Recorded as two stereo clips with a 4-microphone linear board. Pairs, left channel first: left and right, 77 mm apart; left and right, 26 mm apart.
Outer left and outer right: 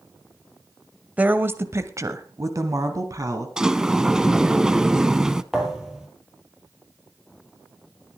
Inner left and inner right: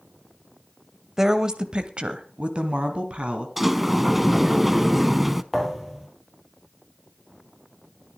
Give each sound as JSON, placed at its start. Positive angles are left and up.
{"t": 1.2, "sound": "a woman speaking", "side_deg": -20, "distance_m": 1.1}
{"t": 3.6, "sound": "a sliding door", "side_deg": -10, "distance_m": 0.6}
{"t": 5.5, "sound": "a thud", "side_deg": -10, "distance_m": 3.5}